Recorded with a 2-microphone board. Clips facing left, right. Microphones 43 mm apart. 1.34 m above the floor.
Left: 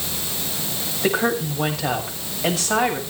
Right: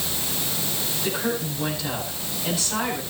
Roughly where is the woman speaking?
Left.